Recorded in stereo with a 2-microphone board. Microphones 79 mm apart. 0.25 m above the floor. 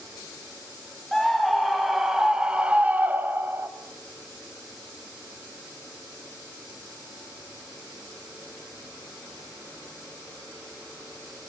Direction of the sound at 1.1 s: 5° left (ahead or behind).